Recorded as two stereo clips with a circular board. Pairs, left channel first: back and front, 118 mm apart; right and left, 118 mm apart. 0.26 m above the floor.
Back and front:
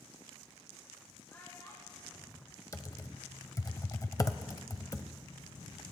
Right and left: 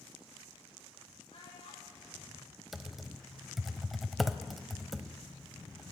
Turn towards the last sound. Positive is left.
turn(degrees=180)